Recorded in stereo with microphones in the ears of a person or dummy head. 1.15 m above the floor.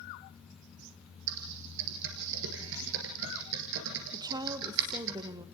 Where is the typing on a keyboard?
70° right (ahead or behind), 3.5 m.